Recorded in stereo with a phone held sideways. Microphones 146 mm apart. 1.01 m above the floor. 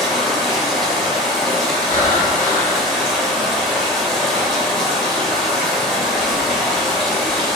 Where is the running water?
Centre (ahead or behind), 0.7 m.